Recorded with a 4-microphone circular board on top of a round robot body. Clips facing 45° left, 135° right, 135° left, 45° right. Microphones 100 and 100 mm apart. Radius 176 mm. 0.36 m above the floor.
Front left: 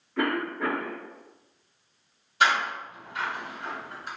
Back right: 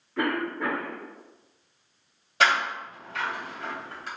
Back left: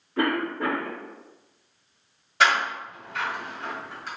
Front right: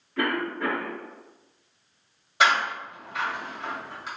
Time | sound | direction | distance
0.2 | a cough | 135° left | 1.1 m
2.4 | a door slam | 125° right | 2.0 m